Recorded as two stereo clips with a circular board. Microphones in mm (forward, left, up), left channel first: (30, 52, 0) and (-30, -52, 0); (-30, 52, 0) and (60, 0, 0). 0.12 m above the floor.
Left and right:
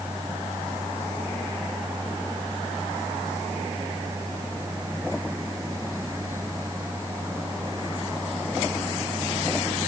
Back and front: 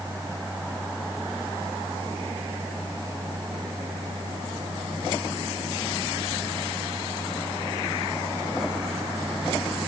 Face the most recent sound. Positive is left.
No sound to turn to.